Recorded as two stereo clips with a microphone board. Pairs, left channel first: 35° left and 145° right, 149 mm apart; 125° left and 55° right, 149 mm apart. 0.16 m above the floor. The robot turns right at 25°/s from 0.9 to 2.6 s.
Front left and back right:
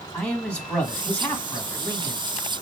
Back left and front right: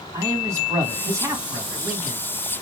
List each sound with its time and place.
0.1 s a man speaking: 35° right, 1.5 m; by 2.2 s straight ahead, 1.5 m